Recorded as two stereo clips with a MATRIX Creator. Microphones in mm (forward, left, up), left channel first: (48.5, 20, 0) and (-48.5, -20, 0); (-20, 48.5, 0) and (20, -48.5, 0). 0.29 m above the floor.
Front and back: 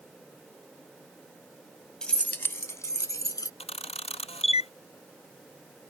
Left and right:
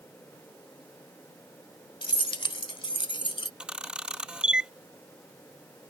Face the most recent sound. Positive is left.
turn(degrees=15)